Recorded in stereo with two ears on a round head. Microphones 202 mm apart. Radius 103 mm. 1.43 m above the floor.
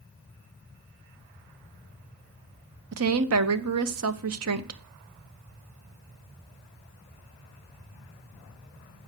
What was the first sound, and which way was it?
A woman speaking, 70° right (ahead or behind).